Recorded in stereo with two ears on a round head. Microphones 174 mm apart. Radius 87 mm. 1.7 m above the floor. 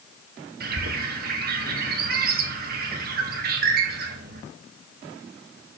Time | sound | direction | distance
0.6 | a bird | 50° right (ahead or behind) | 1.6 m